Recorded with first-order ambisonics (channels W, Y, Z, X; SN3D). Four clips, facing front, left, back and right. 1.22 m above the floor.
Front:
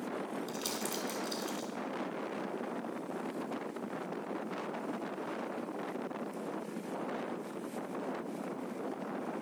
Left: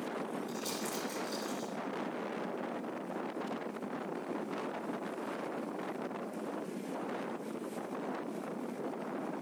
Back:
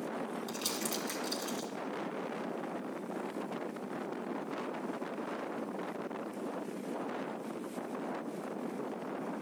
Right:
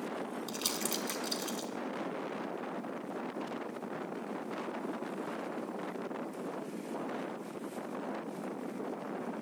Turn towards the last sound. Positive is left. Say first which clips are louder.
# right 2 dB, back 1 dB
turn(degrees=-95)